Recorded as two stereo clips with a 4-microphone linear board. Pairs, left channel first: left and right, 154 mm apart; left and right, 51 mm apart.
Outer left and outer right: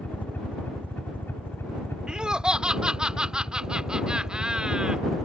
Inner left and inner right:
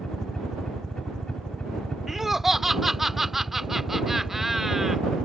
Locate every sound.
0.0 s a helicopter: 10° left (ahead or behind); by 5.2 s 20° left (ahead or behind)
2.1 s laughter: 5° right (ahead or behind)